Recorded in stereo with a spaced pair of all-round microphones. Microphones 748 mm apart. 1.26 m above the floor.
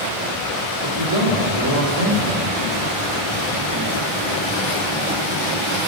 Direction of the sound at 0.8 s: 25° right (ahead or behind).